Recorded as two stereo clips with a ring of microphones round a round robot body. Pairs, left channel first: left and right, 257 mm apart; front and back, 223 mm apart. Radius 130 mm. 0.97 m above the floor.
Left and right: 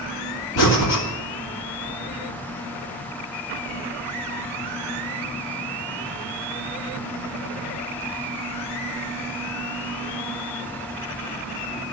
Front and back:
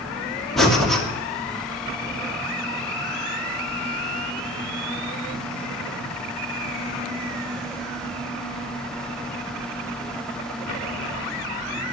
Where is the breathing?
90° left, 2.5 m.